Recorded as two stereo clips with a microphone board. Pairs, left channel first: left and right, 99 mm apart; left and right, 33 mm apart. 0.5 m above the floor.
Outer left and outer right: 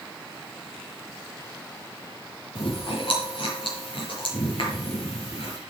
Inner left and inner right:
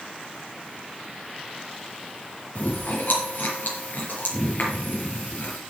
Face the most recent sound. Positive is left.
turn(degrees=60)  # may be behind; listen again after turning